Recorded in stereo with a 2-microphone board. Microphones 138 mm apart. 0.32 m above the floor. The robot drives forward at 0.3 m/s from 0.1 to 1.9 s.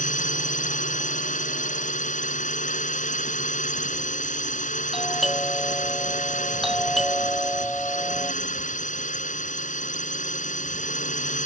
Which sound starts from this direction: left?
A drone, at 0.0 s.